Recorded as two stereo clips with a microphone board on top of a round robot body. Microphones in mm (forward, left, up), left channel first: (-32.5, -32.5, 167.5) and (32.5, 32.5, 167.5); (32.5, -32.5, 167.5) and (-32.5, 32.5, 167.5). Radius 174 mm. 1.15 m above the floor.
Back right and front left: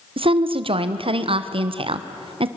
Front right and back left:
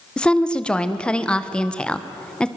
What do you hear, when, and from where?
0.2 s a woman speaking: 30° left, 1.4 m